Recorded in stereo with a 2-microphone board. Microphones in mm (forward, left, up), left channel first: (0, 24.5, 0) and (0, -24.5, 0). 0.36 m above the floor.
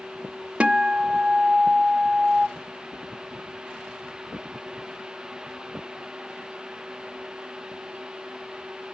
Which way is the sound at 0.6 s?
25° right (ahead or behind).